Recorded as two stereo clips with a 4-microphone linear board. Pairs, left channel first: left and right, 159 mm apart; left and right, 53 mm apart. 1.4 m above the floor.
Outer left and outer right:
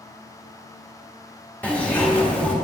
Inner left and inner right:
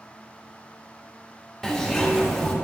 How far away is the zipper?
About 1.2 m.